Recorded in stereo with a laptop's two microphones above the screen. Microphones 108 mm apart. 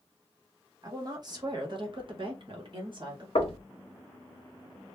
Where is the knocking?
65° left (ahead or behind), 0.8 m.